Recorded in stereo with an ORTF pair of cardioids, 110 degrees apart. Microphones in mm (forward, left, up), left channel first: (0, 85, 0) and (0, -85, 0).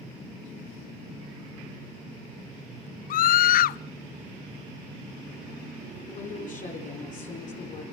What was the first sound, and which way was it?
A scream, 60° left.